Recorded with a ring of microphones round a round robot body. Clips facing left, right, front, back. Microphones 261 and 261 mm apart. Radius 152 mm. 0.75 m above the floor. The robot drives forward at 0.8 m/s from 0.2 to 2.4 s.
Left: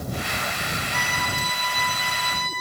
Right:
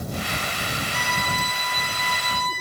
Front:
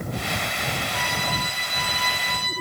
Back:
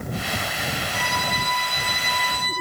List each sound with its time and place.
0.9 s a violin: 140° left, 6 m; by 2.5 s 145° left, 7 m